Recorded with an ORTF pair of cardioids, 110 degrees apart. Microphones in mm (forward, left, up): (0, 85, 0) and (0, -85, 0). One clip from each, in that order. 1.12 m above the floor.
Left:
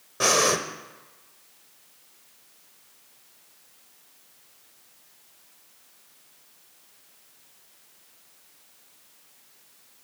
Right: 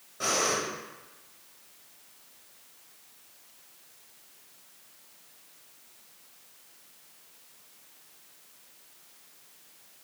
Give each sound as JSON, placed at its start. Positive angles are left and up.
{"t": 0.2, "sound": "breathing", "azimuth_deg": 65, "distance_m": 0.9}